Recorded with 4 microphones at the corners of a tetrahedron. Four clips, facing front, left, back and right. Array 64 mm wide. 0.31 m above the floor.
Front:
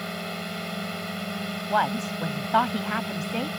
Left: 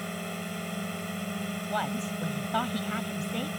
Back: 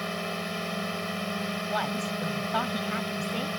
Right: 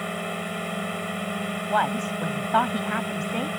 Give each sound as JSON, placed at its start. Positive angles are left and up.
{"t": 0.0, "sound": "a drone", "azimuth_deg": -100}
{"t": 1.7, "sound": "a woman speaking", "azimuth_deg": -50}